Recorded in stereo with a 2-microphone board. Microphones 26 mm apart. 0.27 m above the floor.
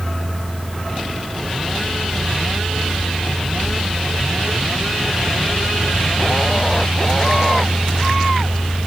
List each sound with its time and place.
Only background noise.